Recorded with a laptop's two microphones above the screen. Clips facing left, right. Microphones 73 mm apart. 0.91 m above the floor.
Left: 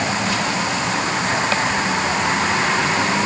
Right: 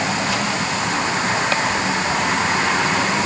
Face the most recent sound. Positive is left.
No sound to turn to.